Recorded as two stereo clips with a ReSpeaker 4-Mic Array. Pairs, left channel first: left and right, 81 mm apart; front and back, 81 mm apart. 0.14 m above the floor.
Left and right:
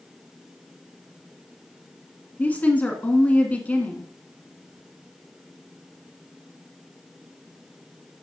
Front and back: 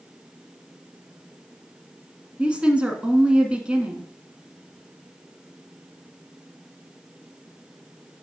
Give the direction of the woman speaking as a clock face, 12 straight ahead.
8 o'clock.